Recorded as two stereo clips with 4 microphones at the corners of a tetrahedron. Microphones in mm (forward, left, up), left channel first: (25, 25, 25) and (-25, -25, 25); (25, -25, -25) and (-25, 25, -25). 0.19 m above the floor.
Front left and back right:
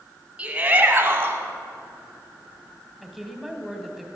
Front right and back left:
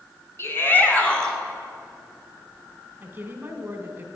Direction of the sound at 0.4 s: 70° right.